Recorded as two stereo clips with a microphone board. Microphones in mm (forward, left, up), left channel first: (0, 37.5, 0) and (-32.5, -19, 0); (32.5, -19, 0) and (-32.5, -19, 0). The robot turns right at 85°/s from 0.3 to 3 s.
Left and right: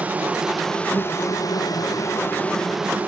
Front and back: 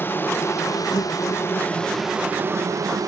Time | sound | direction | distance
0.0 | an insect | 55° right | 0.8 m